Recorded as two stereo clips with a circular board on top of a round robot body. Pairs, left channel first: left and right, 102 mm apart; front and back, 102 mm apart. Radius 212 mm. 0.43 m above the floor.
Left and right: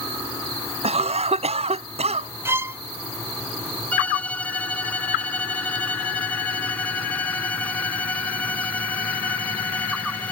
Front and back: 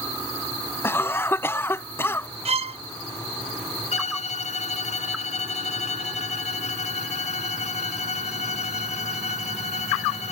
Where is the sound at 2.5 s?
160° right.